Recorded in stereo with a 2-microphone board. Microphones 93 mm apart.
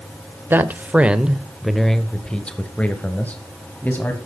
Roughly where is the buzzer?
No buzzer in this recording.